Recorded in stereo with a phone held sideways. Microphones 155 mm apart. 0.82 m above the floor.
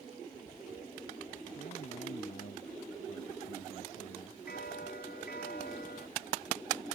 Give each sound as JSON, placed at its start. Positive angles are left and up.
{"t": 1.6, "sound": "a man speaking", "side_deg": 65}
{"t": 4.5, "sound": "a bell", "side_deg": 85}